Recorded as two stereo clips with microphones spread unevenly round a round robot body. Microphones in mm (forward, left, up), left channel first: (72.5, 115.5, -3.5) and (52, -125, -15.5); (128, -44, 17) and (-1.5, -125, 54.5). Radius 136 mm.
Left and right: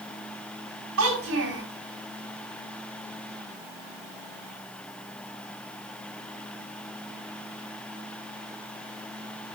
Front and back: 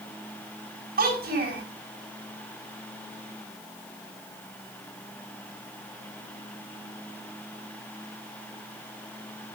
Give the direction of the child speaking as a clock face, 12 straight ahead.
5 o'clock.